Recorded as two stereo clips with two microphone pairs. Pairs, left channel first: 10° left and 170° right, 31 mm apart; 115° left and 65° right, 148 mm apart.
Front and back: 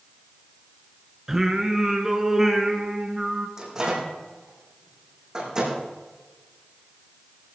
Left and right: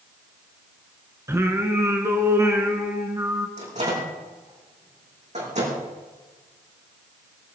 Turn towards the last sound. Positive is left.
turn(degrees=-100)